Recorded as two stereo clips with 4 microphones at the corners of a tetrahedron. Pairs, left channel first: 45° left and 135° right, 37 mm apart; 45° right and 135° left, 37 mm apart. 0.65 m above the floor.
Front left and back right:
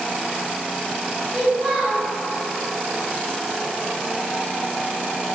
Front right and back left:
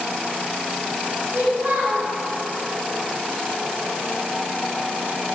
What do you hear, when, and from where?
1.3 s a child speaking: straight behind, 0.6 m